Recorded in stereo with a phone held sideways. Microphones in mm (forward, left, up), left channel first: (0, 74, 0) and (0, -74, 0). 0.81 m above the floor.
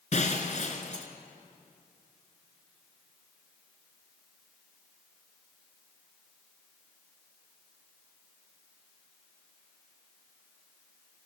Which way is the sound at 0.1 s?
55° left (ahead or behind).